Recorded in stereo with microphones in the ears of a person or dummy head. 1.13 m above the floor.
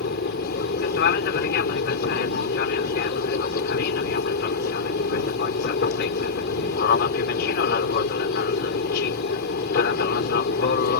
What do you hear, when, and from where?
0.0 s an aircraft: 55° left (ahead or behind)